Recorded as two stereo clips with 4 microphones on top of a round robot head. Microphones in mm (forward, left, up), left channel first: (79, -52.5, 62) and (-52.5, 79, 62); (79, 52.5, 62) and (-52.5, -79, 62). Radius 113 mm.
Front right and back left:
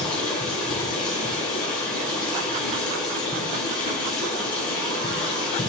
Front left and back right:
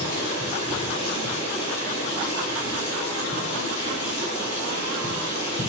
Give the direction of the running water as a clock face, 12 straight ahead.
12 o'clock.